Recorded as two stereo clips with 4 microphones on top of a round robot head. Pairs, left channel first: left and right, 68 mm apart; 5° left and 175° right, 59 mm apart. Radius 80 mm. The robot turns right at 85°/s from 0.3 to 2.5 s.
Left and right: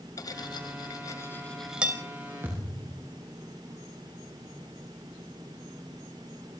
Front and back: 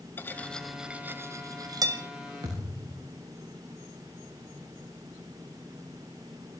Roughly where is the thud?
Behind right.